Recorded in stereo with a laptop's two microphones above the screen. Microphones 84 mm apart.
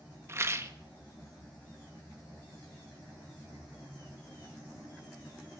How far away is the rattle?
About 1.2 m.